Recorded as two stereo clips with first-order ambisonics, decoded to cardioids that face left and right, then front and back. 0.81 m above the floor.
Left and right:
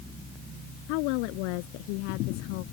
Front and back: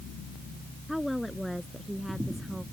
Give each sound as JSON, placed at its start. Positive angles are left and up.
{"t": 0.9, "sound": "a woman speaking", "azimuth_deg": 85}